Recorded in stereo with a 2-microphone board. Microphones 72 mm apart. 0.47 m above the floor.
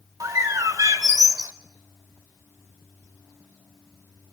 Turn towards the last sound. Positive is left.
turn(degrees=-55)  # may be behind; listen again after turning